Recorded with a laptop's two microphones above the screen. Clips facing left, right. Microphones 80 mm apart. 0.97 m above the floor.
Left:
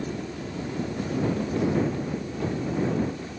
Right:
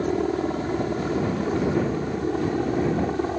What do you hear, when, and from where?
0.0 s a helicopter: 50° right (ahead or behind); by 3.4 s 60° right (ahead or behind)